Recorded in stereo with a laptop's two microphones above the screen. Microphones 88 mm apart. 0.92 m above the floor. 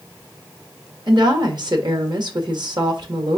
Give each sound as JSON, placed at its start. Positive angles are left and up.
{"t": 1.1, "sound": "a woman speaking", "side_deg": -60, "distance_m": 1.4}